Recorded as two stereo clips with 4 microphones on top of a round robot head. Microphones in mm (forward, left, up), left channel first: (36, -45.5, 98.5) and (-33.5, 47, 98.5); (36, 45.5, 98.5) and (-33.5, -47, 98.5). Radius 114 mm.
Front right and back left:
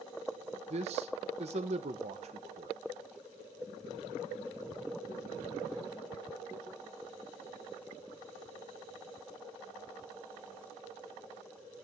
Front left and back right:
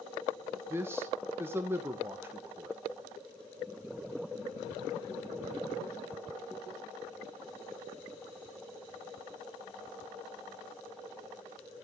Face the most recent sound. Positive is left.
turn(degrees=160)